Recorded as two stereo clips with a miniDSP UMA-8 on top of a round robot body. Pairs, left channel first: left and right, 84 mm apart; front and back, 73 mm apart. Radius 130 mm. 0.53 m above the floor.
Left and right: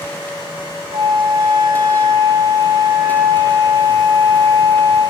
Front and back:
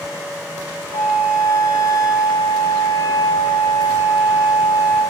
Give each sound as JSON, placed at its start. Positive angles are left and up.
{"t": 0.9, "sound": "a flute", "azimuth_deg": -45, "distance_m": 4.5}